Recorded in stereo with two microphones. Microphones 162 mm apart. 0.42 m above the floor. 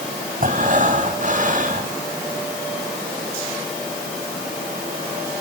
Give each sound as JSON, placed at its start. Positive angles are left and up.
{"t": 0.4, "sound": "breathing", "side_deg": -55, "distance_m": 3.0}